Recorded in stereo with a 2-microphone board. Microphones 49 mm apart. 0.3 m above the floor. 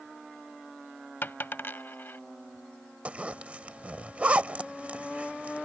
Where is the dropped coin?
55° left (ahead or behind).